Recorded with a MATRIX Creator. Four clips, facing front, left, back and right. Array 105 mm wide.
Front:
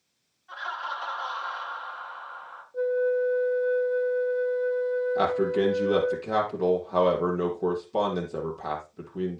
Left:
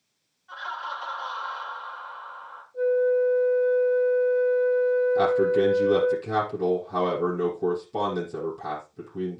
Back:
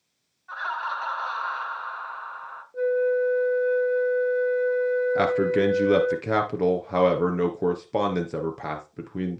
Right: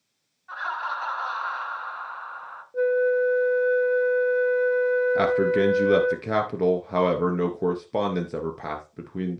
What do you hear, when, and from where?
0.5 s laughter: 135° right, 2 m
2.7 s a flute: 105° right, 1.3 m
5.2 s a man speaking: 145° right, 2.5 m